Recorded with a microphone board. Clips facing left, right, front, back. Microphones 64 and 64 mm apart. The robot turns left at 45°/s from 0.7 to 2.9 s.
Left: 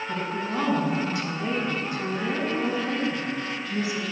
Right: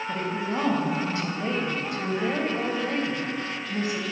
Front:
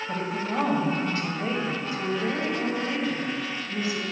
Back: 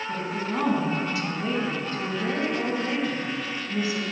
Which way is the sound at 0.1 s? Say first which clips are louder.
Right 1 dB, front 1 dB; 20° right.